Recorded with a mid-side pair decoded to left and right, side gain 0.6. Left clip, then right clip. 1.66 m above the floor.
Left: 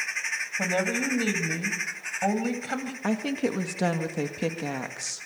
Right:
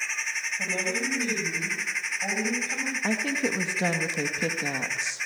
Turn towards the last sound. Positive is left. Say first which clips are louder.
# left 1 dB
turn(degrees=10)